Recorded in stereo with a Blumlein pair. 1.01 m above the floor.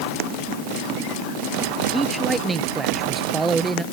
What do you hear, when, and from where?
1.9 s a man speaking: 10° right